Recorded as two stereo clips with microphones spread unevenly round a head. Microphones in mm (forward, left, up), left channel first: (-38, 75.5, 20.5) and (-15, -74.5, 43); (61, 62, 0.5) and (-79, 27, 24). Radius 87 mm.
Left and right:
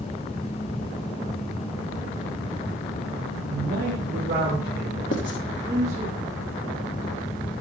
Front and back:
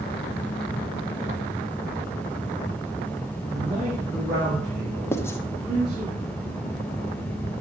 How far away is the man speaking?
About 1.7 m.